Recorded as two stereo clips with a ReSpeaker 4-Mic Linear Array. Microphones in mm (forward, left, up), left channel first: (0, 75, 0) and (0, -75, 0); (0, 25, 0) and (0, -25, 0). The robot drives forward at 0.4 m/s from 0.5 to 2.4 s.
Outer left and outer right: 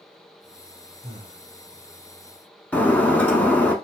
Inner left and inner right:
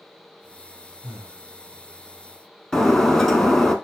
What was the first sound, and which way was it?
Breathing, 20° right (ahead or behind).